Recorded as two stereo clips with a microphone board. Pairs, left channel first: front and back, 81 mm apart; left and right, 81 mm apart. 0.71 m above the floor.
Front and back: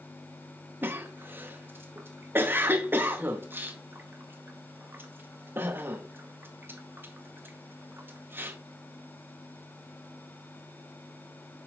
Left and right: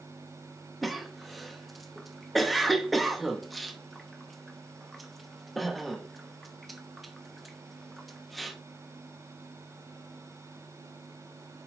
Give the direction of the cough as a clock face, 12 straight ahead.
6 o'clock.